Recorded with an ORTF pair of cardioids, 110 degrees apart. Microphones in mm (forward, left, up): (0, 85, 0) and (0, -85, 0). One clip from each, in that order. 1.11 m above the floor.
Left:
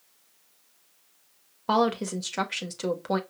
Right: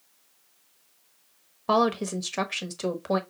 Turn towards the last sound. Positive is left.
turn(degrees=-5)